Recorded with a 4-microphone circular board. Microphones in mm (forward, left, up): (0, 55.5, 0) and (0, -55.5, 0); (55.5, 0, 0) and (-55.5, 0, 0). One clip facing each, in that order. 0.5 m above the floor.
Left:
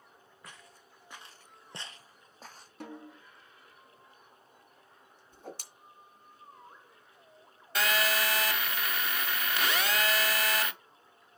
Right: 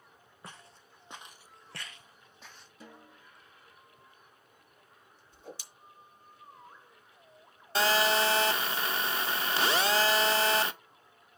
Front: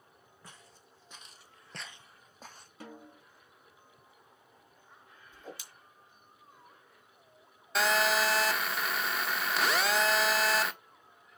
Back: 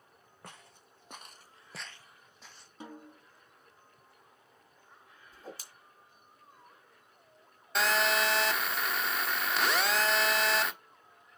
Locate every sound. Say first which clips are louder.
0.4 s footsteps: right 3 dB, back 4 dB; 150° right, 2.0 m; by 2.7 s 40° left, 1.5 m
2.8 s a snare drum: left 8 dB, back 1 dB; 110° left, 3.5 m
5.3 s a whoosh: left 2 dB, even; 125° left, 2.5 m
7.8 s a phone buzzing: right 4 dB, front 1 dB; 85° right, 0.7 m